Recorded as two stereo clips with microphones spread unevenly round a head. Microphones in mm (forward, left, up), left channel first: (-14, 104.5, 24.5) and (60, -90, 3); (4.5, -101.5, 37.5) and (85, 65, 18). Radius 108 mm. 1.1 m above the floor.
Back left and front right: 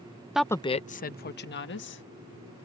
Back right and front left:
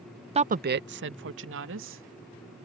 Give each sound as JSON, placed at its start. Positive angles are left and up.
{"t": 0.3, "sound": "a woman speaking", "azimuth_deg": 15}